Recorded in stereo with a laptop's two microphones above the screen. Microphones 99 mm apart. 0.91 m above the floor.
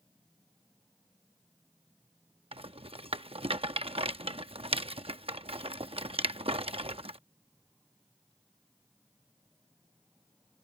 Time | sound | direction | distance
2.5 | a rattle | 70° right (ahead or behind) | ?